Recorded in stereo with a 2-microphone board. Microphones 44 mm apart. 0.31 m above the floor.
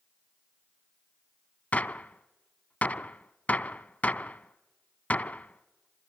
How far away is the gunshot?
About 0.5 m.